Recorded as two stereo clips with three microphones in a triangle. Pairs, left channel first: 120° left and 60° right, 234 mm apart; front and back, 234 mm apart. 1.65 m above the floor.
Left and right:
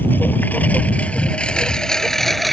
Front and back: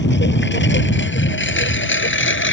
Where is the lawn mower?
40° left; by 2.5 s 30° left.